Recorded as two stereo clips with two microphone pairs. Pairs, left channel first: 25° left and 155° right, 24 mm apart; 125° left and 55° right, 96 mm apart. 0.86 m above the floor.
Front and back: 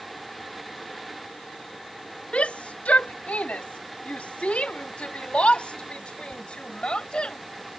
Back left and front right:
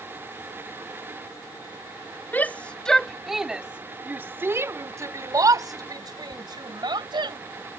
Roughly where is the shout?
Ahead left.